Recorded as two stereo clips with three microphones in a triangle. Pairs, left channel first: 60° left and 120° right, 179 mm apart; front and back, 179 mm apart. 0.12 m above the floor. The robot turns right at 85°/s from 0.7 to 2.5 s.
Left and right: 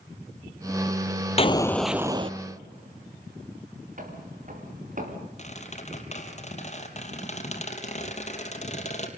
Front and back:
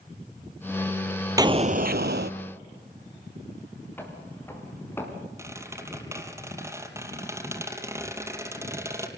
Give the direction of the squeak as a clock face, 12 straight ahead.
8 o'clock.